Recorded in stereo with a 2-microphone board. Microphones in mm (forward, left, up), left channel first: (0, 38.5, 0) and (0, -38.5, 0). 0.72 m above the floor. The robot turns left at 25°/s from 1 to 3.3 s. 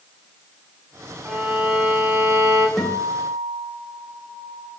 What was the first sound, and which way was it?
A violin, 10° right.